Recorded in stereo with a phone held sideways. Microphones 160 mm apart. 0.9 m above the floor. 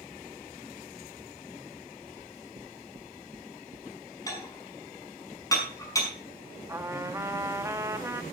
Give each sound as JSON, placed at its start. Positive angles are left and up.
{"t": 2.2, "sound": "knocking", "side_deg": -50, "distance_m": 0.7}
{"t": 4.3, "sound": "dishes clattering", "side_deg": 20, "distance_m": 5.0}
{"t": 6.7, "sound": "a trumpet", "side_deg": -20, "distance_m": 1.0}